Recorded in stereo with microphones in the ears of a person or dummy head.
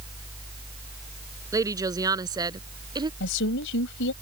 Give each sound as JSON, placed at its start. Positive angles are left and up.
{"t": 1.5, "sound": "a woman speaking", "side_deg": -15}
{"t": 3.2, "sound": "a woman speaking", "side_deg": 65}